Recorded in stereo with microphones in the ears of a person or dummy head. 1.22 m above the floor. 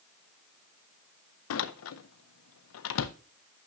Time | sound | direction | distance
1.5 | a door slam | 75° left (ahead or behind) | 0.5 m